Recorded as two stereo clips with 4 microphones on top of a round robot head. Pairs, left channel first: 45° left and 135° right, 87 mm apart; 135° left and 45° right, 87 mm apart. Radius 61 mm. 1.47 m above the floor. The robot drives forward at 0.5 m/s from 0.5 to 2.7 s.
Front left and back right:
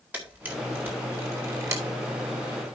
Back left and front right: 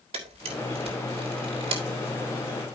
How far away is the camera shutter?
About 3 m.